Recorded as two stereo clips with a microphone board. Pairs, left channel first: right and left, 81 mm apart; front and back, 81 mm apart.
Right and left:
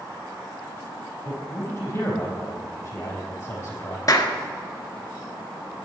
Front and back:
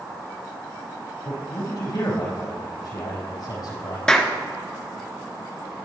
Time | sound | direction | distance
1.2 | a man speaking | 30° right | 4.5 m
4.1 | a clap | 75° right | 1.4 m